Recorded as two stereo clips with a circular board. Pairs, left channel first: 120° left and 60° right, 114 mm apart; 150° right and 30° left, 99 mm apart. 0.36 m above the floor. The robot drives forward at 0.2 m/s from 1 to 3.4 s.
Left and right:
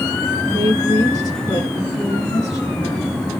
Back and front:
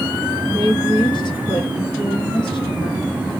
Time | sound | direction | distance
0.5 | a woman speaking | 175° left | 4.5 m